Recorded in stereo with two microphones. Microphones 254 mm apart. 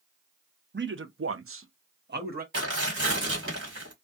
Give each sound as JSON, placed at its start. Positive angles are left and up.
{"t": 0.7, "sound": "a man speaking", "side_deg": -45, "distance_m": 0.6}
{"t": 2.5, "sound": "tearing paper", "side_deg": -50, "distance_m": 1.6}